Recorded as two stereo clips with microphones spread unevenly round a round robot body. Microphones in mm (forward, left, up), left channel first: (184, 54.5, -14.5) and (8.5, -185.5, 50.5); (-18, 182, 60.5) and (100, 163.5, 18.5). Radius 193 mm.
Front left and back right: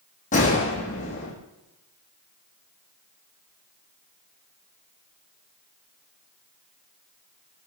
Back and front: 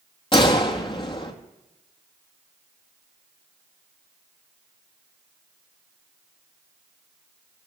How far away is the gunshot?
About 1.9 m.